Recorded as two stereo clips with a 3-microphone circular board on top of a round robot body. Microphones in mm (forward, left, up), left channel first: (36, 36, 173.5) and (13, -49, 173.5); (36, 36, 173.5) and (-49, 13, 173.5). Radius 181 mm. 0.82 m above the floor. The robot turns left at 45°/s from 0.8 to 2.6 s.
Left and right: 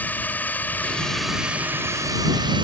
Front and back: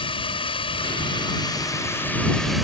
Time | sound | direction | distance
0.0 | a drone | 5° left | ?